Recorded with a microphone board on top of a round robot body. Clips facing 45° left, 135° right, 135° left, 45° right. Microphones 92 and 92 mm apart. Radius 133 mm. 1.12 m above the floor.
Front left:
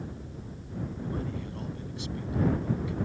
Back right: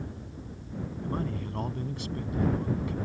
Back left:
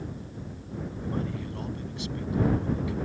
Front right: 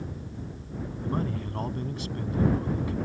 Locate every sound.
1.0 s a man speaking: 95° right